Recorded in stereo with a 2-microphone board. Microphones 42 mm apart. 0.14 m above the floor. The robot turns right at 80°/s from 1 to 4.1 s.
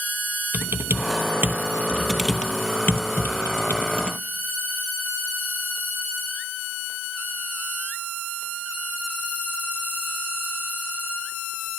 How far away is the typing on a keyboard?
About 0.7 m.